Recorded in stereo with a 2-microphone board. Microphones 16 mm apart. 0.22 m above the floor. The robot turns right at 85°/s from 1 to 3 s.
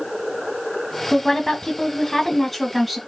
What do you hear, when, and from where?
1.1 s a woman speaking: 50° left, 1.4 m; by 3.0 s 150° right, 1.4 m